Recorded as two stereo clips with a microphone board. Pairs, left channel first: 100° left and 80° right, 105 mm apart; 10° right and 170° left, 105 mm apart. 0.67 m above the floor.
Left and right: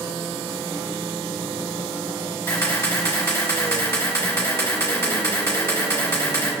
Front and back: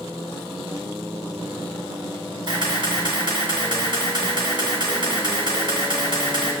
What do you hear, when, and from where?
2.5 s a camera shutter: 150° left, 1.7 m